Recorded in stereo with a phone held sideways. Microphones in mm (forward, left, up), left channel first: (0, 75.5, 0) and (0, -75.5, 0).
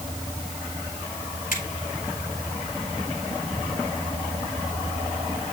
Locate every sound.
1.5 s a finger snap: 70° left (ahead or behind), 5.5 m